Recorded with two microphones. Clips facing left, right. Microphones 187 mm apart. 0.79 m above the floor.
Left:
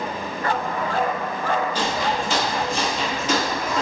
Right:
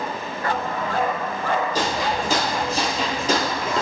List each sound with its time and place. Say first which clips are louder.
1.8 s footsteps: even; 45° right (ahead or behind), 1.4 m; by 3.8 s 30° right (ahead or behind), 0.9 m